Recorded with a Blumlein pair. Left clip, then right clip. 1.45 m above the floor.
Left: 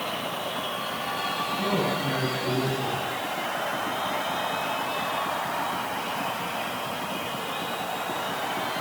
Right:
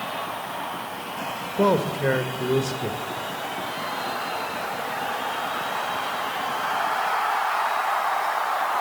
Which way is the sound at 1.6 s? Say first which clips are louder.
Right 9 dB; 50° right.